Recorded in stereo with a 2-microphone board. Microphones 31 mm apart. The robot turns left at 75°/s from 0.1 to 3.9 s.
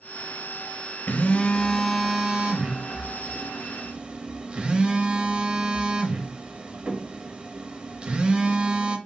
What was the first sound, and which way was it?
A phone buzzing, 70° left.